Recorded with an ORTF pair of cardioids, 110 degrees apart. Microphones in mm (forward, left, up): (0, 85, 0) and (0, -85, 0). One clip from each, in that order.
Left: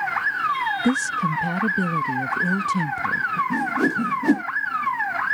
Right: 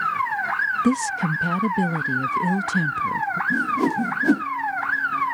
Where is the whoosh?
5° right.